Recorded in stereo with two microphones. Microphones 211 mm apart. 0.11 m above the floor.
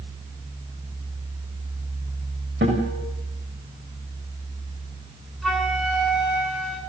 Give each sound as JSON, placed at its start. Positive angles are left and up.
{"t": 2.6, "sound": "a guitar", "side_deg": -70, "distance_m": 9.0}
{"t": 5.4, "sound": "a flute", "side_deg": 0, "distance_m": 9.5}